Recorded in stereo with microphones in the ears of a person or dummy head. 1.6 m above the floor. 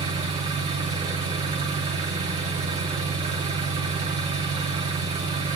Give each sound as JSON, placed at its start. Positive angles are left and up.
{"t": 0.0, "sound": "an engine running", "side_deg": -30, "distance_m": 3.0}